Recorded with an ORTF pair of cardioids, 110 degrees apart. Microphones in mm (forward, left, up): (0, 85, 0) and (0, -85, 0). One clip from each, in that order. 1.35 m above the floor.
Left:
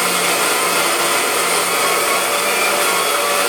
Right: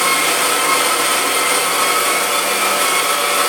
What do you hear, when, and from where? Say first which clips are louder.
0.0 s a machine running: right 1 dB; 20° right, 1.6 m